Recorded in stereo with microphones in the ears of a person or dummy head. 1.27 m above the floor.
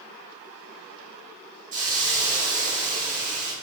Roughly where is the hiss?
Right.